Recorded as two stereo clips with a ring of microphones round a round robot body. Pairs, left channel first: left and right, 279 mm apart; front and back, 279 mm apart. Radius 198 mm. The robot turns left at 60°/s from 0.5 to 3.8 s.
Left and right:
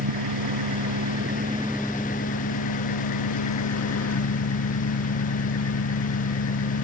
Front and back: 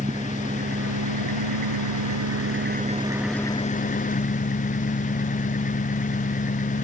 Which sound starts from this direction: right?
An engine running, at 0.0 s.